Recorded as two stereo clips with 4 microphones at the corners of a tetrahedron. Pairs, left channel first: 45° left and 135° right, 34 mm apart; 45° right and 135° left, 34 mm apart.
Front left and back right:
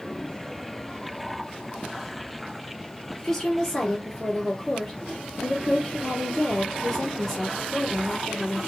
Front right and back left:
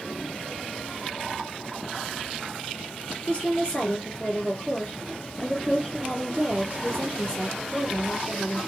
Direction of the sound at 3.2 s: 30° right.